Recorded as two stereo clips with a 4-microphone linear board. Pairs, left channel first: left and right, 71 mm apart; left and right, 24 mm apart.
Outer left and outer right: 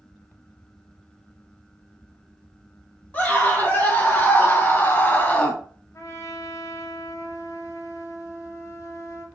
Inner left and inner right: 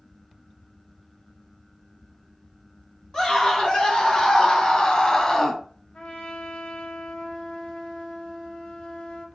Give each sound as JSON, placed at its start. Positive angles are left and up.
{"t": 3.1, "sound": "a scream", "side_deg": 20, "distance_m": 1.6}
{"t": 5.9, "sound": "a trumpet", "side_deg": 45, "distance_m": 0.8}